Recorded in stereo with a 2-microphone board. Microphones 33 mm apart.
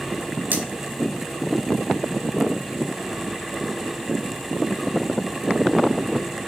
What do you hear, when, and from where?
0.5 s cutlery clinking: 70° right (ahead or behind), 0.8 m